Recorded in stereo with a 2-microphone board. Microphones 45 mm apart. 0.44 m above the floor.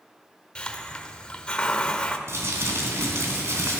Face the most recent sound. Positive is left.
turn(degrees=-75)  # may be behind; listen again after turning